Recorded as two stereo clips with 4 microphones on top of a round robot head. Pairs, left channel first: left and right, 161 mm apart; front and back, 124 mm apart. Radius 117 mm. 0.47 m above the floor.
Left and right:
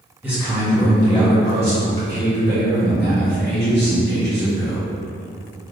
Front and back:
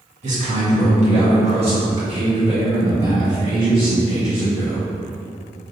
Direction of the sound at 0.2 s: 170° right.